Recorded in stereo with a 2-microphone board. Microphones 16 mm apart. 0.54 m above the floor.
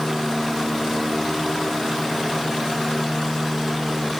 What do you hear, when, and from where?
Only background noise.